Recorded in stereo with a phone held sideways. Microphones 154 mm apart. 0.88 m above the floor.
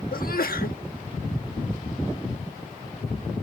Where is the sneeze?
70° left (ahead or behind).